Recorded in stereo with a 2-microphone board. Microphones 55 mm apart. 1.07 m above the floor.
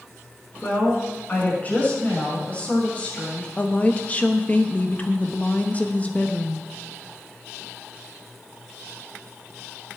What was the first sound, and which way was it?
A woman speaking, 30° left (ahead or behind).